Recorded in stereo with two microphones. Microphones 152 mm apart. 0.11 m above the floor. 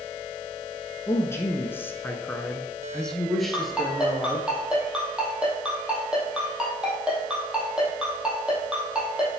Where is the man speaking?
15° left (ahead or behind), 1.2 m; by 4.5 s centre (ahead or behind), 2 m.